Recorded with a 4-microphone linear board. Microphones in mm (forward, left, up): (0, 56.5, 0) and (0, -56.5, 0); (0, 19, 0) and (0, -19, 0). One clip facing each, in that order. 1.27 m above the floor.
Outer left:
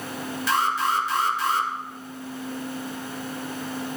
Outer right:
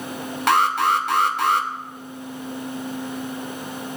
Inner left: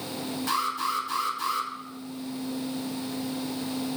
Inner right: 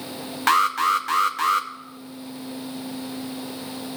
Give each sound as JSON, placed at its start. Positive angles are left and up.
{"t": 0.5, "sound": "an alarm", "side_deg": -65, "distance_m": 0.6}